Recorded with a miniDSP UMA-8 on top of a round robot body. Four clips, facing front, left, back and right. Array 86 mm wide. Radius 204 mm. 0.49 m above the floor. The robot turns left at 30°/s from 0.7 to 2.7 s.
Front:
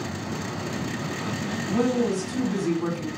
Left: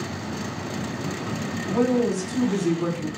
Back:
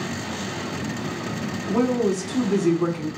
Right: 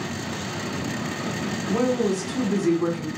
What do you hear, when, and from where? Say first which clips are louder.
1.7 s a woman speaking: left 1 dB, back 2 dB; 140° right, 2.0 m; by 3.1 s 170° right, 2.0 m